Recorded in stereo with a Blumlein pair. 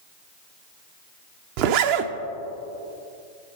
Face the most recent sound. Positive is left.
turn(degrees=-45)